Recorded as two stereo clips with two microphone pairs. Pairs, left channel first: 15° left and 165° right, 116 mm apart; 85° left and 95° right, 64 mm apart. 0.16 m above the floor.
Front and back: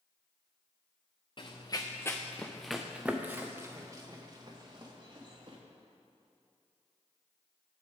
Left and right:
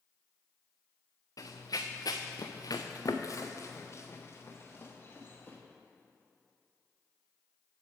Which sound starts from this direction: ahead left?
Running footsteps, at 1.4 s.